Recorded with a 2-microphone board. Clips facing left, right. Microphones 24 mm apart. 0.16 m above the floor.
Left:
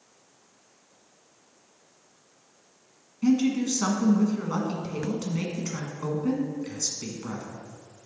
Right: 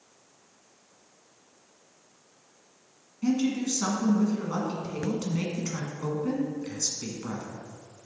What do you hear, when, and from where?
3.2 s a woman speaking: 15° left (ahead or behind), 1.5 m